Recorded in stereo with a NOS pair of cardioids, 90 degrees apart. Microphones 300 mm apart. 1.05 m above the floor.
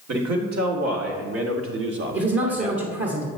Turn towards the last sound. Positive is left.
turn(degrees=-40)